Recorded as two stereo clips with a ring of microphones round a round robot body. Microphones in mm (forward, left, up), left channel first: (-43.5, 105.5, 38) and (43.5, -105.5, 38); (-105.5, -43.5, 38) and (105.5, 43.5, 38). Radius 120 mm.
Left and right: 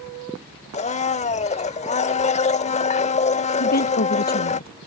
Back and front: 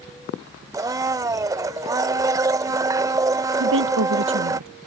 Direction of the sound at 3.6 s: 60° left.